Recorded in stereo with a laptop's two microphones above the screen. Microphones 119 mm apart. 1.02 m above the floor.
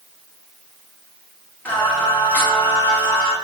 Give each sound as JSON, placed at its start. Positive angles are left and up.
{"t": 1.6, "sound": "singing", "side_deg": 15, "distance_m": 1.1}